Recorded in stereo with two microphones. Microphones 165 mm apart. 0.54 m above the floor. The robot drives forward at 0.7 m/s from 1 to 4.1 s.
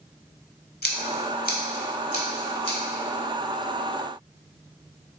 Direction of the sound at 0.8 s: 75° left (ahead or behind).